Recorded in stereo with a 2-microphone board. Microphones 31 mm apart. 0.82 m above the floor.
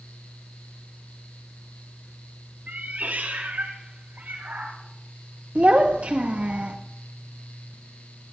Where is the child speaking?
45° right (ahead or behind), 0.8 m.